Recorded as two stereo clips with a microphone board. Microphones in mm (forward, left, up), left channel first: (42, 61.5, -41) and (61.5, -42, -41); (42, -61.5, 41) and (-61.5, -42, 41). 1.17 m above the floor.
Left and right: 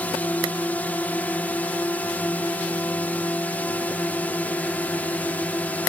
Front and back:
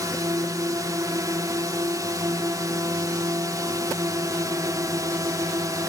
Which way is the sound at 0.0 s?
165° left.